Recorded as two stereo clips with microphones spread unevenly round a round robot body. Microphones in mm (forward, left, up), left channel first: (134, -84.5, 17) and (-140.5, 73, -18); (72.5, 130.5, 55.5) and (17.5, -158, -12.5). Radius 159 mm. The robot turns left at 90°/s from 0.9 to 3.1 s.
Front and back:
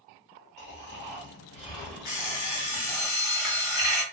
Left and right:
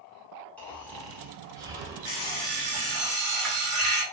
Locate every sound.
0.6 s snoring: 30° right, 0.9 m; by 3.0 s 145° left, 0.9 m
2.0 s an alarm clock: 20° left, 1.5 m; by 4.0 s 75° right, 1.5 m